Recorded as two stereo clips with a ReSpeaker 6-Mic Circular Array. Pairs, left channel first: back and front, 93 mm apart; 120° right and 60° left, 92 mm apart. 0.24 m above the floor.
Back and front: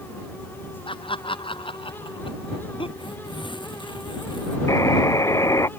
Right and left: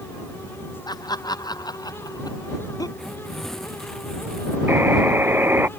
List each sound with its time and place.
0.9 s laughter: 165° right; by 2.9 s 170° right
3.0 s tearing paper: 155° left
4.7 s a buzzer: 125° left